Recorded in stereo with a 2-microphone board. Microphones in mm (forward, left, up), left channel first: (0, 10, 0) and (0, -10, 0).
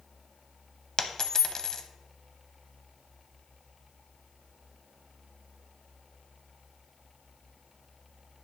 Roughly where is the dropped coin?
Left.